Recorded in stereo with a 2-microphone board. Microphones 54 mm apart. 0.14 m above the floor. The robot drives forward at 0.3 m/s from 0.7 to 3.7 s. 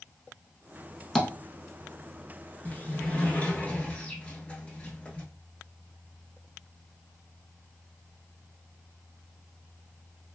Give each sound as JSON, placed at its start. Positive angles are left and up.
{"t": 1.1, "sound": "tapping", "side_deg": 5, "distance_m": 0.6}
{"t": 2.6, "sound": "a sliding door", "side_deg": 25, "distance_m": 0.7}